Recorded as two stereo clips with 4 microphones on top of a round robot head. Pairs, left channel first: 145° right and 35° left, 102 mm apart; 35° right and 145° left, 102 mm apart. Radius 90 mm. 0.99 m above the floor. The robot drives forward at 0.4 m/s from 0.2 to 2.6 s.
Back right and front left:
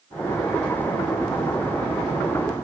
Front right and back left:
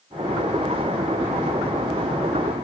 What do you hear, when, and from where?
Only background noise.